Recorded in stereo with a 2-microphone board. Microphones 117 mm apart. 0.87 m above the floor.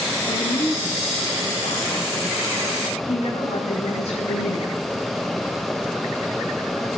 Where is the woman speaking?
70° left (ahead or behind), 6.5 m.